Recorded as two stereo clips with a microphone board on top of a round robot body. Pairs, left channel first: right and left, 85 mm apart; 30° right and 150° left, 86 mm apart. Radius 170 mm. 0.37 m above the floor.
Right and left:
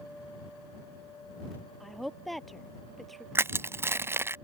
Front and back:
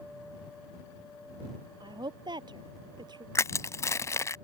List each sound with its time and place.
1.8 s a woman speaking: straight behind
3.4 s crushing: 30° left